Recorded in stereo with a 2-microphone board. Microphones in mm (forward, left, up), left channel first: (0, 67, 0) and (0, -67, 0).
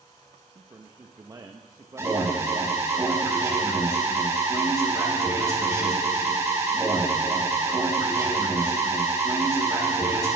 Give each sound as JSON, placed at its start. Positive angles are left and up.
{"t": 0.6, "sound": "a man speaking", "side_deg": -30, "distance_m": 1.0}
{"t": 2.0, "sound": "an alarm", "side_deg": -20, "distance_m": 3.0}